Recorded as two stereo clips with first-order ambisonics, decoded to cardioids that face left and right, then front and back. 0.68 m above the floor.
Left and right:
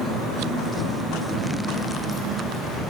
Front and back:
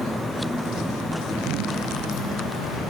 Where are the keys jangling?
60° left, 4 m; by 2.9 s 65° left, 4.5 m.